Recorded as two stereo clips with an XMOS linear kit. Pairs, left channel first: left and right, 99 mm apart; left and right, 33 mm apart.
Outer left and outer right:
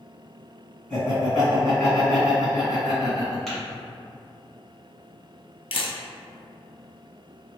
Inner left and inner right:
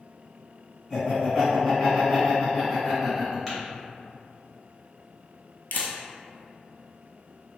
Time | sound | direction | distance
0.9 | laughter | 5° left (ahead or behind) | 1.8 m
3.5 | tapping | 5° left (ahead or behind) | 1.7 m
5.7 | a camera shutter | 80° left | 0.6 m